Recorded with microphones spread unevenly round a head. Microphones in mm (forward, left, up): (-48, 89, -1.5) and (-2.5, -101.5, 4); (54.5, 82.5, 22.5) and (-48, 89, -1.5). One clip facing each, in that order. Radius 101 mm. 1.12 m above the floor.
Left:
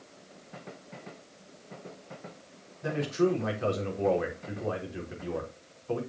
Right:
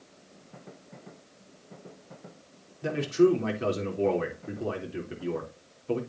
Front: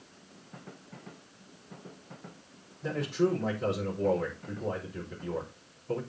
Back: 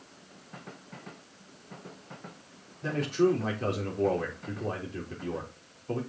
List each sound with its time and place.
2.8 s a man speaking: 130° right, 3.5 m